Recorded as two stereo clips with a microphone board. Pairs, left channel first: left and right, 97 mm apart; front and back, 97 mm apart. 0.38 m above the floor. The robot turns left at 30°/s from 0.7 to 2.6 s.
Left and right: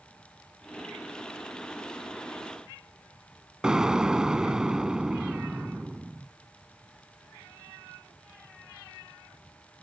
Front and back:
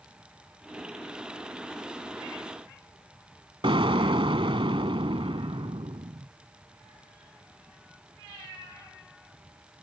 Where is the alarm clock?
No alarm clock in this recording.